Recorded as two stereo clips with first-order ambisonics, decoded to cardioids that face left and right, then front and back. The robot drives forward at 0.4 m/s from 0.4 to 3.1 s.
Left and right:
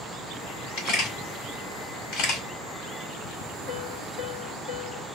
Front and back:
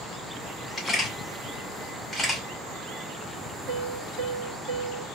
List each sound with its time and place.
0.8 s a camera shutter: 70° left, 2.0 m; by 2.4 s 90° left, 1.9 m
3.7 s a piano: 140° left, 1.6 m